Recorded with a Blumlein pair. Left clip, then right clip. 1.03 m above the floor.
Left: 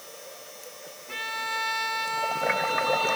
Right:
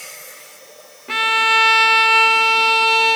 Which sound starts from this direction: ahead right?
A violin, at 1.1 s.